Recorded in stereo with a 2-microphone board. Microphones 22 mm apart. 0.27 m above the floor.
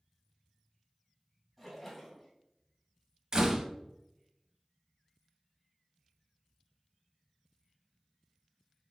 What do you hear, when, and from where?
1.6 s a splash: 10° left (ahead or behind), 2 m
3.3 s a door slam: 35° right (ahead or behind), 0.8 m